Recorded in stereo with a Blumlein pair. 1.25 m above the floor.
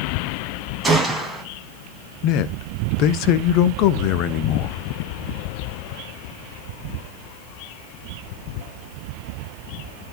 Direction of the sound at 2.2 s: 40° left.